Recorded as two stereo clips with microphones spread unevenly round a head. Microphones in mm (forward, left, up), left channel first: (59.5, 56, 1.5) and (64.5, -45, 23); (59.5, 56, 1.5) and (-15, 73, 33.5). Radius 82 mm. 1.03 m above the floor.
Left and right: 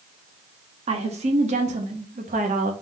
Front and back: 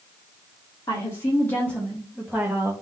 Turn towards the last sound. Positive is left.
turn(degrees=-115)